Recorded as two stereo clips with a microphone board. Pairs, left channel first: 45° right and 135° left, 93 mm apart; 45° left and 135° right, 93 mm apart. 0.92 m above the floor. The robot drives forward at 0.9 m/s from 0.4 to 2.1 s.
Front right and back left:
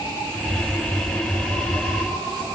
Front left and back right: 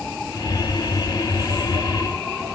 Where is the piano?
I don't hear a piano.